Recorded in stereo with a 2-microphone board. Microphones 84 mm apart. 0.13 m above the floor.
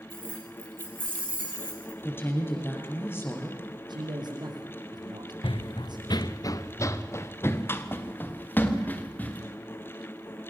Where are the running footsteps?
85° left, 0.6 m; by 9.4 s 20° left (ahead or behind), 3 m.